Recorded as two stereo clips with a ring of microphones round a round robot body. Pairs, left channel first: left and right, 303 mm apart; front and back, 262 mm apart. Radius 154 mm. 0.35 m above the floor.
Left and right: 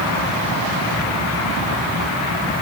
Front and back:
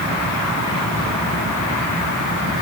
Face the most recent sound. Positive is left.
No sound to turn to.